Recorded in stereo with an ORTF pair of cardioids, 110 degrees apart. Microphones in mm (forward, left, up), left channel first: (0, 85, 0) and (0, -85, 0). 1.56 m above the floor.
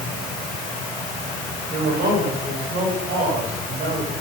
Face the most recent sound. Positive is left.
turn(degrees=-70)